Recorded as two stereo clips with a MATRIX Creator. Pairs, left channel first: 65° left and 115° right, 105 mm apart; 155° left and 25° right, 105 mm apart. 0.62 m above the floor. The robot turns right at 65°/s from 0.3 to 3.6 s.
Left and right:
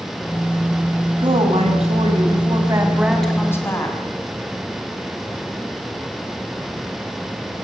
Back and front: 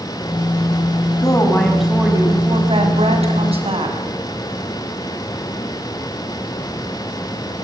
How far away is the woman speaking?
About 5.5 m.